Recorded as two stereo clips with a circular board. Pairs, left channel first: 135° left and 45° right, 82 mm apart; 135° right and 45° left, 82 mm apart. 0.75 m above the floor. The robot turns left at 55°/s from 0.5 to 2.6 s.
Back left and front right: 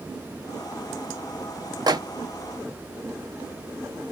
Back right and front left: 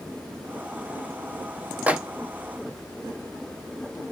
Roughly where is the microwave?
Ahead.